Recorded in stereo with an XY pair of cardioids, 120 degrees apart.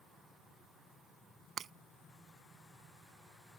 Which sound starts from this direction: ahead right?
Breaking glass, at 1.6 s.